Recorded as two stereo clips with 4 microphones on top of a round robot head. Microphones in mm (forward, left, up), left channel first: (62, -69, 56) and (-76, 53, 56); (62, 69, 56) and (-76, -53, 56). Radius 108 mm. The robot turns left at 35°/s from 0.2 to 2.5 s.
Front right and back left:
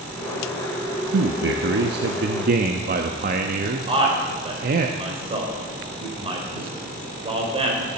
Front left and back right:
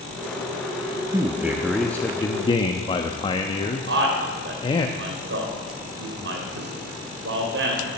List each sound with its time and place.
1.1 s a man speaking: 150° left, 0.8 m; by 4.9 s 105° left, 0.8 m
3.9 s a man speaking: 160° right, 4 m